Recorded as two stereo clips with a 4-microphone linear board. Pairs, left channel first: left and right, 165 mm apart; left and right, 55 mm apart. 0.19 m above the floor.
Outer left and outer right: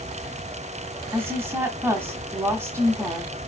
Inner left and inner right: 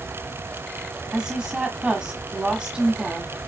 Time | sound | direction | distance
1.1 | a woman speaking | 15° right (ahead or behind) | 1.2 m